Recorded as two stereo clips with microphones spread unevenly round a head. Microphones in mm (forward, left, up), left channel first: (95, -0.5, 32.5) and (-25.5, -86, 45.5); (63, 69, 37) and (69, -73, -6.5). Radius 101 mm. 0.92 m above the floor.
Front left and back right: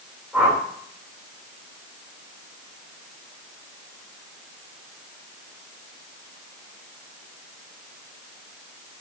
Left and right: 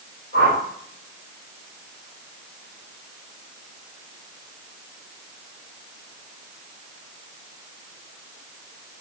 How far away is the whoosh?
About 2.5 m.